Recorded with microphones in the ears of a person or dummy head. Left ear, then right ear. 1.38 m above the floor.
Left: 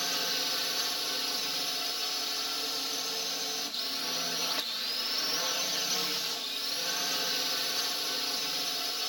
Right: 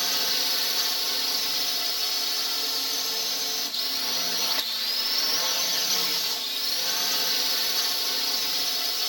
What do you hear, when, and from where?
0.0 s a drone: 20° right (ahead or behind)